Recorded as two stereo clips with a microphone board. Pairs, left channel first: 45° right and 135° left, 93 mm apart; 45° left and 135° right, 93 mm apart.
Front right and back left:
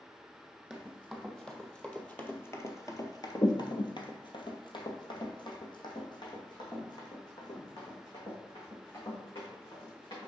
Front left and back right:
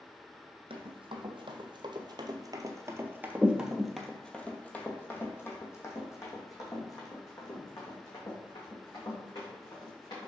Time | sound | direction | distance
0.7 | running footsteps | 140° right | 1.8 m